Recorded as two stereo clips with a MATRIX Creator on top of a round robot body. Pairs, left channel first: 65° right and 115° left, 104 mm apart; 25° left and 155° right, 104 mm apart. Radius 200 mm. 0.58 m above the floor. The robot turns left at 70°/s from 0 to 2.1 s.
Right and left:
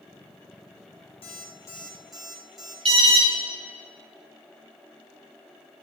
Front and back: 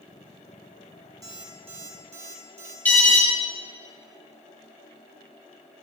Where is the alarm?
95° left, 5 m.